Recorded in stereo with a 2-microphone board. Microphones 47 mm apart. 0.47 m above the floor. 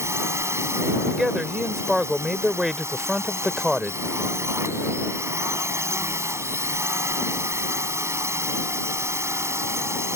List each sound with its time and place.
0.0 s a drone: 70° right (ahead or behind)
1.1 s a man speaking: 10° right (ahead or behind)